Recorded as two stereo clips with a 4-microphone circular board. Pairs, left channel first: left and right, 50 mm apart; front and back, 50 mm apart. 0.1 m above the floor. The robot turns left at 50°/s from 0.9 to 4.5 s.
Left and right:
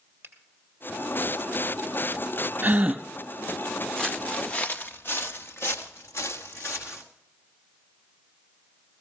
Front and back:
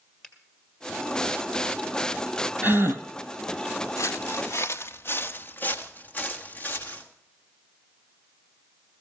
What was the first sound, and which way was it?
A finger snap, 85° right.